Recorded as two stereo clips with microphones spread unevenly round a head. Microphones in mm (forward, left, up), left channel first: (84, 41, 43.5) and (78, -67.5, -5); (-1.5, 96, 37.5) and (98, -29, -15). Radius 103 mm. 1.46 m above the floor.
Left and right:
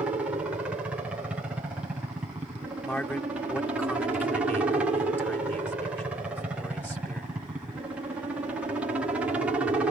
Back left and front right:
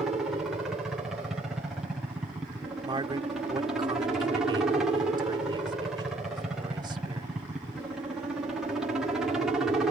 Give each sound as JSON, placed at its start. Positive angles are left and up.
{"t": 0.0, "sound": "a helicopter", "azimuth_deg": -110}
{"t": 2.8, "sound": "a man speaking", "azimuth_deg": 15}